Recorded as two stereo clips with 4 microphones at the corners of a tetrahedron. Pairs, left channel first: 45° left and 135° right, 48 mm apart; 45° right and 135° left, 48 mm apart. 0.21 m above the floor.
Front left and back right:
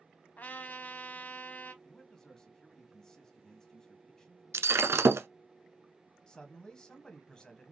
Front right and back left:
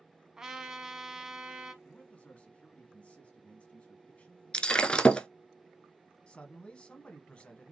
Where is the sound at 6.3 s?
10° right, 1.1 m.